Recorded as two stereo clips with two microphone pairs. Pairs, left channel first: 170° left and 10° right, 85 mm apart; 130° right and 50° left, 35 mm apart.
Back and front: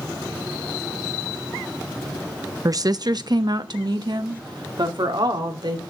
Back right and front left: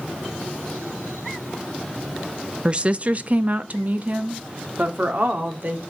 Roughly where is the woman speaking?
Ahead.